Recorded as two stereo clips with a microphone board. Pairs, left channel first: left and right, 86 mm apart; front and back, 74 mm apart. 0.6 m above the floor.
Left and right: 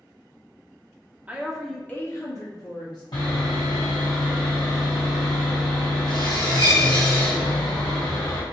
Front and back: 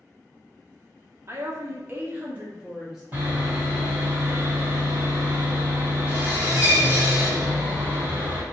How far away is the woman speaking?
About 0.8 m.